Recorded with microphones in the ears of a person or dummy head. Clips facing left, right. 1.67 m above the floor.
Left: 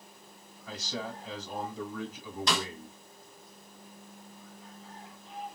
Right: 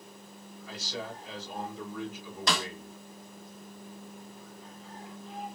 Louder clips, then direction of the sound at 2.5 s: Even; 45° right (ahead or behind).